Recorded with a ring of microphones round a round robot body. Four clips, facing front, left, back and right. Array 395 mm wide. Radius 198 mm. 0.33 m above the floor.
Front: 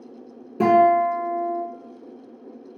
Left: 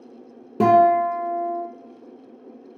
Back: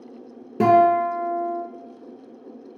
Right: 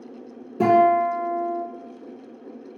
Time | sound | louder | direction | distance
0.6 | a guitar | left 1 dB, even | 120° left | 0.8 m